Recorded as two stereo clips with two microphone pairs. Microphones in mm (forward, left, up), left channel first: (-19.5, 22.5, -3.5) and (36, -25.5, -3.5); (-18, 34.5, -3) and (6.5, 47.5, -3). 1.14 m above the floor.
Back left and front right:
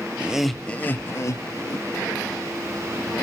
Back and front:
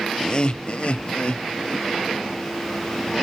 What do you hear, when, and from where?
0.2 s laughter: 105° right, 0.7 m; by 2.3 s 160° left, 1.6 m